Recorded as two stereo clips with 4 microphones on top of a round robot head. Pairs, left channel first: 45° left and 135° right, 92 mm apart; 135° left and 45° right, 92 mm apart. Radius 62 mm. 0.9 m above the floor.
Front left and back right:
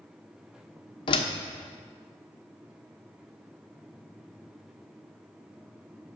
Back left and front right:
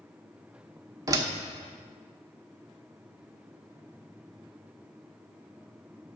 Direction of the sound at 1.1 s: 10° left.